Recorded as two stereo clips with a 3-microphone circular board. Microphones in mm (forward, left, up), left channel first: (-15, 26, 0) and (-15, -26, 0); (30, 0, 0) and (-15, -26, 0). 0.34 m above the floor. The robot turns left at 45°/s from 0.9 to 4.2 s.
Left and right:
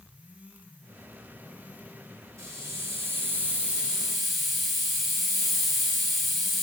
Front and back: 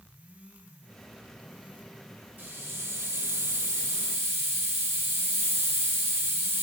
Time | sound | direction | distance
2.4 | a hiss | 100° right | 7 m